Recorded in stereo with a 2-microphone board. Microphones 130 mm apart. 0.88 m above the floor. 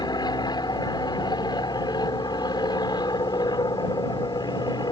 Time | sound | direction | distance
0.0 | an aircraft | 30° left (ahead or behind) | ?